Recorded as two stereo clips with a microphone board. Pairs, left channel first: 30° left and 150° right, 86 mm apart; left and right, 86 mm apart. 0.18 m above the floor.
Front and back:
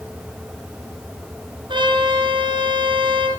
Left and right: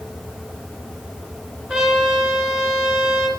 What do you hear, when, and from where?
1.7 s a trumpet: straight behind, 6.5 m